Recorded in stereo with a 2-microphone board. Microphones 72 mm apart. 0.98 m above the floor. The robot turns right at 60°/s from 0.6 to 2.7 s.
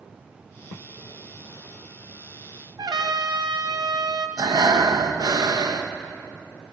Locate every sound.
2.8 s a trumpet: 65° right (ahead or behind), 0.7 m
4.4 s breathing: 65° right (ahead or behind), 0.7 m